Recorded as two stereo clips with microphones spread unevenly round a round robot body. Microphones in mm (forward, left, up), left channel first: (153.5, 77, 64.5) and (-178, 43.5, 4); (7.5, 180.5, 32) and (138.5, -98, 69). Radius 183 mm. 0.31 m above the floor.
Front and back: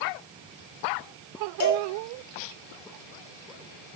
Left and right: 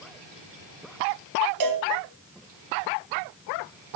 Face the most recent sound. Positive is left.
turn(degrees=-50)